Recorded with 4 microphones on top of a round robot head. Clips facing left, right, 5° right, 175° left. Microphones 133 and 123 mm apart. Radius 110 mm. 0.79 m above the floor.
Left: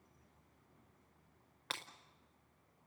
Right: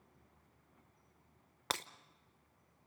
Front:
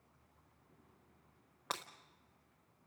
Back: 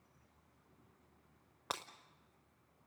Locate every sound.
1.7 s breaking glass: 105° right, 0.5 m